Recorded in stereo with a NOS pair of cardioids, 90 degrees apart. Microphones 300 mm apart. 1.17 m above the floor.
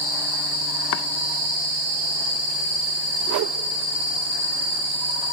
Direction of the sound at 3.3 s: 65° right.